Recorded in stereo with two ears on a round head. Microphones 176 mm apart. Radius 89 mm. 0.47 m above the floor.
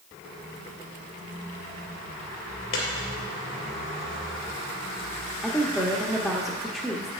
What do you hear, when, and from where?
2.7 s a dropped coin: 70° left (ahead or behind), 2.5 m
5.4 s a woman speaking: centre (ahead or behind), 0.9 m